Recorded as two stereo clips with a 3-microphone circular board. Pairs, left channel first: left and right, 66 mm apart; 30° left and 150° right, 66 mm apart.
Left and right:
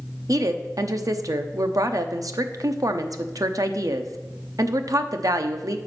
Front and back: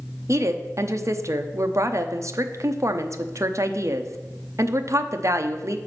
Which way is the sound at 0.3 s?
115° right.